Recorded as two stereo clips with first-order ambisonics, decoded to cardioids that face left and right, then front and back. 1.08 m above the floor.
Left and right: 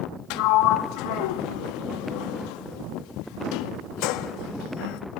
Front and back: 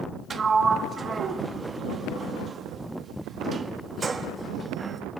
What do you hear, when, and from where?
0.3 s a sliding door: 110° left, 1.1 m